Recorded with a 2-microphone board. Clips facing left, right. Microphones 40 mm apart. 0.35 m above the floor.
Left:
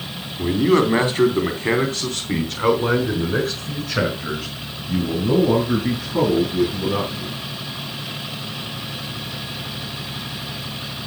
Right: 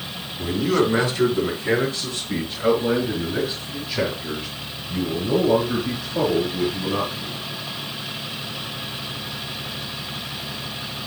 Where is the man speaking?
25° left (ahead or behind), 3.5 m; by 7.4 s 75° left (ahead or behind), 8 m.